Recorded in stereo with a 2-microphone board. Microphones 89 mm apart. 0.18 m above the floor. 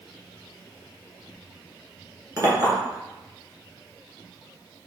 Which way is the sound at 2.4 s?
45° right (ahead or behind).